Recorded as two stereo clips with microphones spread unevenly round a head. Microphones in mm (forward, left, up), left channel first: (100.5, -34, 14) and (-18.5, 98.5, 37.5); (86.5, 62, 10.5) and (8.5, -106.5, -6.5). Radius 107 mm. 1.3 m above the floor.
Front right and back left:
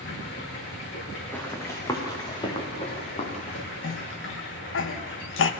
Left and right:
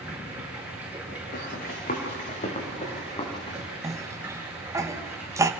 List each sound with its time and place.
0.0 s running water: 30° right, 9.5 m
1.3 s running footsteps: 35° left, 4.5 m; by 3.6 s straight ahead, 5 m
3.8 s a cough: 40° right, 1.2 m